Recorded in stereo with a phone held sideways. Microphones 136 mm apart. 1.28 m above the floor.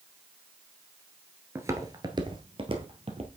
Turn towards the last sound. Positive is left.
turn(degrees=-45)  # may be behind; listen again after turning